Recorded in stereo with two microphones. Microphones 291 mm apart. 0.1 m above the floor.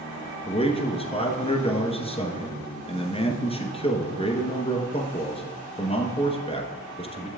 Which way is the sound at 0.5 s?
20° left (ahead or behind).